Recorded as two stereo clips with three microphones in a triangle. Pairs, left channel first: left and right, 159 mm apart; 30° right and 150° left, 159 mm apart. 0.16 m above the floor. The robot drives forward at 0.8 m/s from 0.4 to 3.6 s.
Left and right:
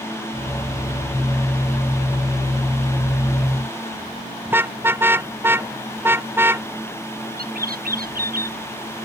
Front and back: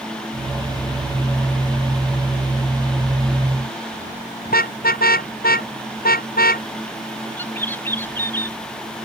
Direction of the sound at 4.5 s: 15° right.